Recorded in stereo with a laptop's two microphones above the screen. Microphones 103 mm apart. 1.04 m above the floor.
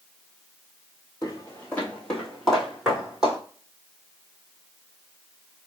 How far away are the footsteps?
About 1.3 m.